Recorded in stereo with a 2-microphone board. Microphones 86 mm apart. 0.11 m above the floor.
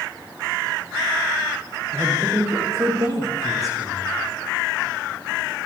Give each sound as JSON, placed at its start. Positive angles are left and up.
{"t": 1.9, "sound": "a man speaking", "side_deg": -35, "distance_m": 9.0}